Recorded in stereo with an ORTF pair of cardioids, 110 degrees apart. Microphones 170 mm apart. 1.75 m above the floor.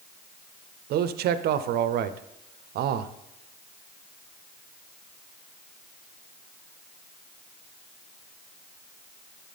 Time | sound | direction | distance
0.9 | a man speaking | 70° right | 0.7 m